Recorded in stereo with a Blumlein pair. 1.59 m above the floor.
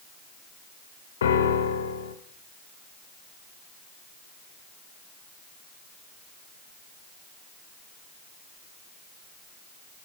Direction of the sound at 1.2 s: 65° left.